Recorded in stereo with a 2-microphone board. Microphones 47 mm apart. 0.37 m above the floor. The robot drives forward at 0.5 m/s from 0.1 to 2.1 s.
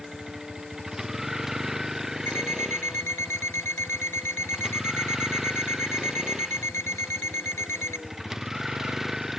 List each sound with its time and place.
0.0 s a vehicle: 10° right (ahead or behind)
2.3 s an alarm clock: 75° left (ahead or behind)